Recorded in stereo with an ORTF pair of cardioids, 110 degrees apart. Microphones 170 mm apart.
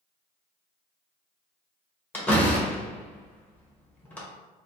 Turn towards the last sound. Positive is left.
turn(degrees=10)